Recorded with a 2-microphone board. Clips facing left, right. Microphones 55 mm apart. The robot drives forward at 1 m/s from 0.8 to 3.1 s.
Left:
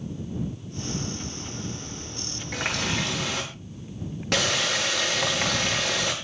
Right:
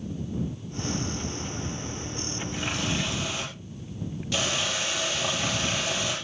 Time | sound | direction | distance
2.5 | a running tap | 65° left (ahead or behind) | 8 m